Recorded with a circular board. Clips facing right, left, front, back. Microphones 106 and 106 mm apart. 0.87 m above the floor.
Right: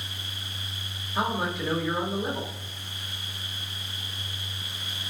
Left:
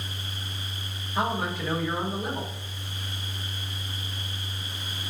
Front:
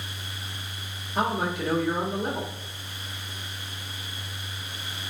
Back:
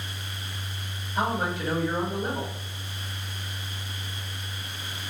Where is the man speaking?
10° right, 1.6 m.